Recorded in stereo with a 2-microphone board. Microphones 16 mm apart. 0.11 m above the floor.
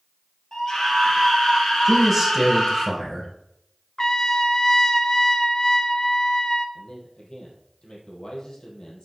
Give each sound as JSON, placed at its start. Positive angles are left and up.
{"t": 0.5, "sound": "a scream", "side_deg": 45, "distance_m": 2.5}
{"t": 1.9, "sound": "a man speaking", "side_deg": 0, "distance_m": 3.5}
{"t": 4.0, "sound": "a trumpet", "side_deg": 30, "distance_m": 0.6}
{"t": 6.8, "sound": "a man speaking", "side_deg": 60, "distance_m": 3.5}